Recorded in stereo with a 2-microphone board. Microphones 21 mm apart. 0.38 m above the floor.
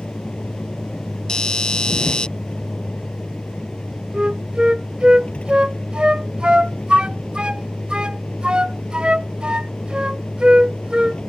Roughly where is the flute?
Right.